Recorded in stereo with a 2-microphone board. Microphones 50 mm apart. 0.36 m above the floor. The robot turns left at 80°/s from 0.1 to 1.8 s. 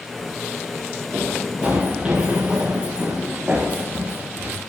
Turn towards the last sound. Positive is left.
turn(degrees=-40)  # may be behind; listen again after turning